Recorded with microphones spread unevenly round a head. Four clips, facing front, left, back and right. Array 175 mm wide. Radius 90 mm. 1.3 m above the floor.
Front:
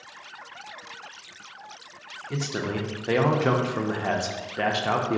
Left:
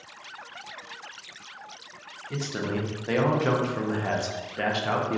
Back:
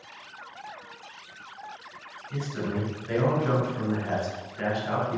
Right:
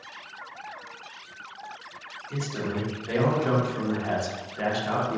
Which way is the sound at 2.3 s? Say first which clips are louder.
Left 1 dB, front 2 dB; 15° left.